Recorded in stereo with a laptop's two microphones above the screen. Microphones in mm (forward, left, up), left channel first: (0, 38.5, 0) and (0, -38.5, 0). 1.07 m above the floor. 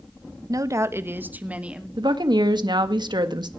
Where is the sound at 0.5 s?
50° right (ahead or behind), 1.1 m; by 1.9 s 15° right (ahead or behind), 2 m.